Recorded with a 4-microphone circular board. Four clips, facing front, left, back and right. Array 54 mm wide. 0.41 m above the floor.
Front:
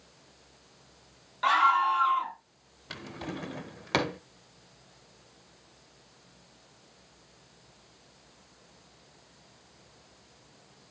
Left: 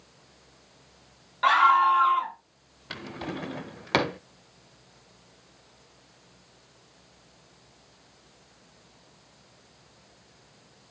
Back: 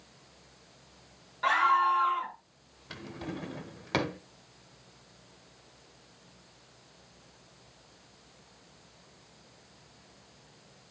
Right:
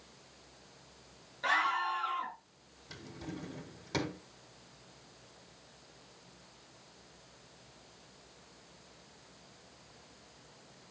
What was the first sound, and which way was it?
A scream, 75° left.